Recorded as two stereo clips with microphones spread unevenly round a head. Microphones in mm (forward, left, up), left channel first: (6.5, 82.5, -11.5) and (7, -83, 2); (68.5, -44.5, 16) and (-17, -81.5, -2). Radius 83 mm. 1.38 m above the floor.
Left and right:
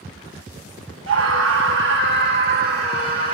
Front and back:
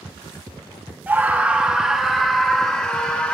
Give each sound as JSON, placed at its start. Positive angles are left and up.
{"t": 1.1, "sound": "a scream", "azimuth_deg": -85, "distance_m": 2.0}